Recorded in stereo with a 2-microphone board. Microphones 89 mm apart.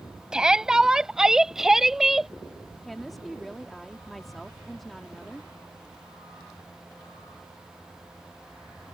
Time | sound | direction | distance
0.3 | a shout | 10° right (ahead or behind) | ?
2.8 | a woman speaking | centre (ahead or behind) | ?